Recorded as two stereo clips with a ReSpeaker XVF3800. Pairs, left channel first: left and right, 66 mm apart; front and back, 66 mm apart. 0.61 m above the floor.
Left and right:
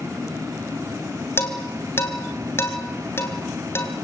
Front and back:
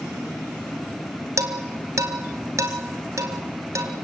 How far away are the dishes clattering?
About 3 m.